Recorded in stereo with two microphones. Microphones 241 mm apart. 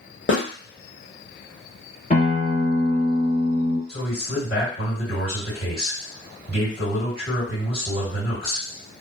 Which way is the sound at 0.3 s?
50° left (ahead or behind).